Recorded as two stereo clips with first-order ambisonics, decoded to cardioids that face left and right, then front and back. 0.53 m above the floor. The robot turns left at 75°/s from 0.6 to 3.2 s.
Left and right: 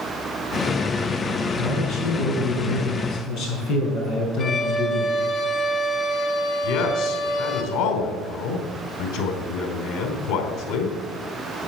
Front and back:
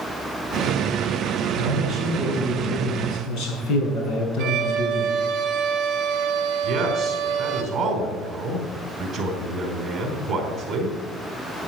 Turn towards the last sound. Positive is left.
turn(degrees=110)